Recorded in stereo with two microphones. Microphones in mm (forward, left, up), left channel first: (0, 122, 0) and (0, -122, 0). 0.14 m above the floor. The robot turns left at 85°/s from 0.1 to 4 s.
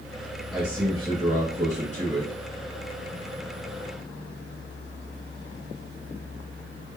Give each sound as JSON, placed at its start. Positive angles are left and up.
{"t": 0.5, "sound": "a man speaking", "azimuth_deg": 0, "distance_m": 2.0}